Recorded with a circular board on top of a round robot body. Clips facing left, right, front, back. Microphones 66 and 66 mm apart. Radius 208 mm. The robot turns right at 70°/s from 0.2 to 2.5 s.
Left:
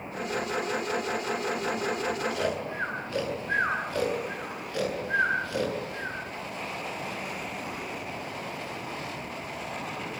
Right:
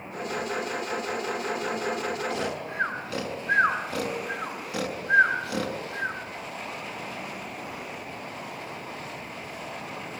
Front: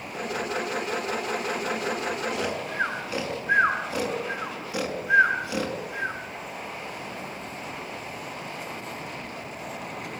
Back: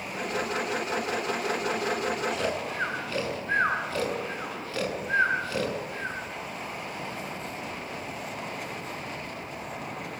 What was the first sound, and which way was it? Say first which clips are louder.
Snoring: left 1 dB, even; 90° right.